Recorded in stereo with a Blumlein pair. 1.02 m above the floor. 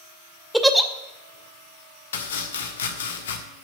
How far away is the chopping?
About 1.3 m.